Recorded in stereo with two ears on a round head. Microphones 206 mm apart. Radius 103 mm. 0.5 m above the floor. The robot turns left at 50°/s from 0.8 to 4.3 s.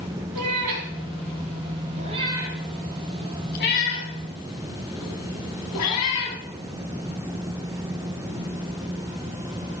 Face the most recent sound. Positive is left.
turn(degrees=80)